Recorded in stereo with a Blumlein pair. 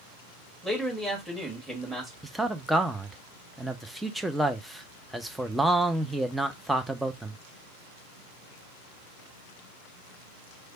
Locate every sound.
0.6 s a man speaking: 5° right, 1.8 m
2.2 s a man speaking: 5° right, 0.6 m